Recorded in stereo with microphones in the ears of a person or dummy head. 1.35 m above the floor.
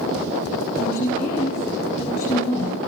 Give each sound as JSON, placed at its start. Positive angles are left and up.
{"t": 0.8, "sound": "a woman speaking", "side_deg": 45, "distance_m": 6.5}